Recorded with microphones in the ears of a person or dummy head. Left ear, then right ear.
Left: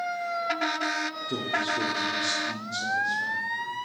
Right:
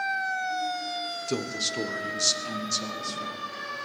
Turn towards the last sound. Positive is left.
turn(degrees=-85)